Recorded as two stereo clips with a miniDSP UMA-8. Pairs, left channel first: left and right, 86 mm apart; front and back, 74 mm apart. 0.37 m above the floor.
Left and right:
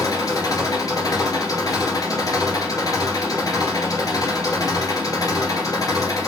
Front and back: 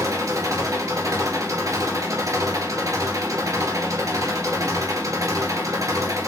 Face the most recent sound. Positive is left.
turn(degrees=135)